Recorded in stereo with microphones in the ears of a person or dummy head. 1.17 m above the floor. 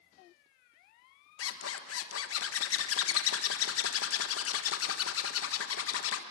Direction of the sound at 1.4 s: 75° left (ahead or behind).